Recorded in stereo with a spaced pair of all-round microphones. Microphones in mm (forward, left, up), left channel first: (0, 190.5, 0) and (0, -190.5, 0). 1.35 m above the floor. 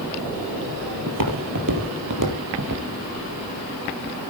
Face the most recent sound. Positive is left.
turn(degrees=-50)  # may be behind; listen again after turning